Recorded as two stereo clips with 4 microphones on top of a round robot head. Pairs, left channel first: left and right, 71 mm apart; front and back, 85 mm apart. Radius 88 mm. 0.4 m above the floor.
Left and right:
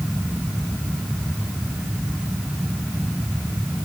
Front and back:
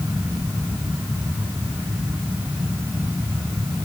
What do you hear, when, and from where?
Only background noise.